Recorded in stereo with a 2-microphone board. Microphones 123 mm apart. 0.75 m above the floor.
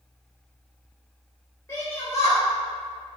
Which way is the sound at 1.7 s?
25° left (ahead or behind).